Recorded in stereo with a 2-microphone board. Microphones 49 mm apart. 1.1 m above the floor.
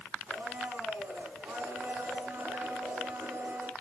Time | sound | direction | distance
0.3 | a blender | 45° right (ahead or behind) | 9 m